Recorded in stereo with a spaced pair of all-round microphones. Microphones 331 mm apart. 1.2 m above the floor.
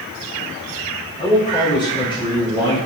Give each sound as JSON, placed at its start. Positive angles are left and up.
{"t": 1.2, "sound": "a man speaking", "side_deg": 15, "distance_m": 4.5}